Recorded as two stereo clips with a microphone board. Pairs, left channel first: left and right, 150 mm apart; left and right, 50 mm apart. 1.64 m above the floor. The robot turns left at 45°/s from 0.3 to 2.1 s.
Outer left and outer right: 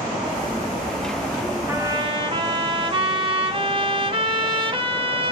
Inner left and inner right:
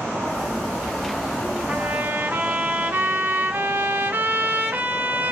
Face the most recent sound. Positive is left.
turn(degrees=-35)  # may be behind; listen again after turning